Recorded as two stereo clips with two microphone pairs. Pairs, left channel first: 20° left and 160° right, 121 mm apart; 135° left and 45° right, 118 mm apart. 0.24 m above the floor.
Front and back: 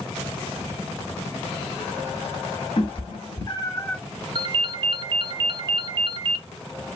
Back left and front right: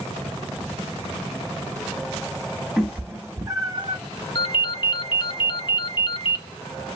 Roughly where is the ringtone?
Behind.